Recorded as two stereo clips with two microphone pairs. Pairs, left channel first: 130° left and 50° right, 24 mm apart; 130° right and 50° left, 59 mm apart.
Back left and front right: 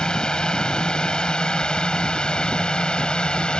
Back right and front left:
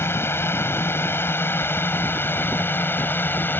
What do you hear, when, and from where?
0.0 s a drone: 170° right; by 3.6 s straight behind